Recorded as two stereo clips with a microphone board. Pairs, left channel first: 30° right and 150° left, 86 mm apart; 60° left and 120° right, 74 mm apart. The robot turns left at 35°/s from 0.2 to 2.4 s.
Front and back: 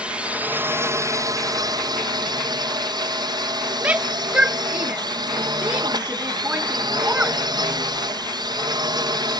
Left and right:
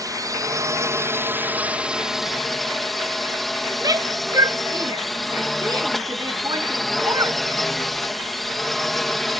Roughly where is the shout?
Behind right.